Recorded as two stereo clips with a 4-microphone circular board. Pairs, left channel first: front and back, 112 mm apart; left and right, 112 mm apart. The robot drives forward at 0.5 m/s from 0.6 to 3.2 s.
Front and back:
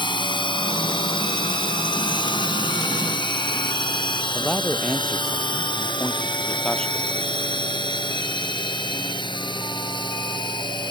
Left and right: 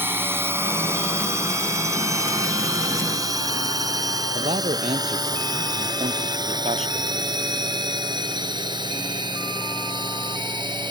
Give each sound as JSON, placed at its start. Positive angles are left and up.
{"t": 0.0, "sound": "a drone", "azimuth_deg": -25}
{"t": 4.3, "sound": "a man speaking", "azimuth_deg": -85}